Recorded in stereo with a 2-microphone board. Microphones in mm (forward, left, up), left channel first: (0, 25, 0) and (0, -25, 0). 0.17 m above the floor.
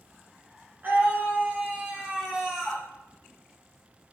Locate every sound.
0.8 s a scream: 40° right (ahead or behind), 2 m; by 2.9 s centre (ahead or behind), 1.4 m